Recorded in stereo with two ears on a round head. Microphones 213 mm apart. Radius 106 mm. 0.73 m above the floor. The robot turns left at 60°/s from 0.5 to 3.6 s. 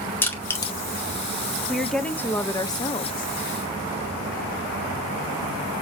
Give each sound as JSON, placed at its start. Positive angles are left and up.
{"t": 0.2, "sound": "crushing", "side_deg": 10, "distance_m": 1.9}
{"t": 1.7, "sound": "a woman speaking", "side_deg": 0, "distance_m": 0.7}